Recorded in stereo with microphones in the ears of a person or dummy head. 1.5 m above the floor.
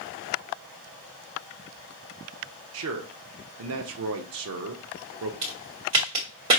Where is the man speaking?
70° right (ahead or behind), 0.7 m.